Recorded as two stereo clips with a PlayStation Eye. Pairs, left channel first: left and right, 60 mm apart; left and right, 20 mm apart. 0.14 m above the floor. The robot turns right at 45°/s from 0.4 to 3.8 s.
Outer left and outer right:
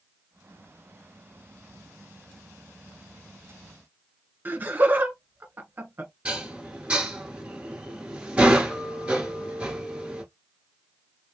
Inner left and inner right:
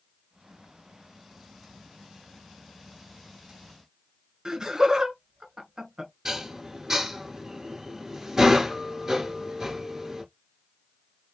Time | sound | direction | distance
4.5 | laughter | 35° right (ahead or behind) | 1.3 m
6.2 | dishes clattering | 15° right (ahead or behind) | 1.3 m